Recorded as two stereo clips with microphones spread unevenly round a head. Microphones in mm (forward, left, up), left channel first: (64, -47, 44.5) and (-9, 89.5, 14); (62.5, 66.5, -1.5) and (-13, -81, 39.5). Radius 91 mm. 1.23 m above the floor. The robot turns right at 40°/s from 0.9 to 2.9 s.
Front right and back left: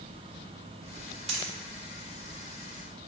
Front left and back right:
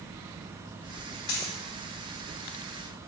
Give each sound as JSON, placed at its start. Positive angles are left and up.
{"t": 1.3, "sound": "a dropped coin", "azimuth_deg": 70, "distance_m": 1.9}